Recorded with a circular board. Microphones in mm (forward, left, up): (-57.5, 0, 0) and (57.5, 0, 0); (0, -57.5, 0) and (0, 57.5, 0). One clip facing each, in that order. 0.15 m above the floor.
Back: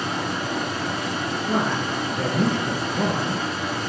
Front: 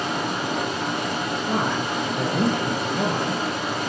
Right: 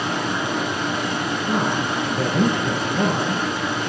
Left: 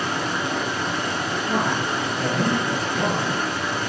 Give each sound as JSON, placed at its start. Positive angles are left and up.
{"t": 0.0, "sound": "running water", "azimuth_deg": -20, "distance_m": 4.5}
{"t": 1.5, "sound": "a man speaking", "azimuth_deg": -50, "distance_m": 2.5}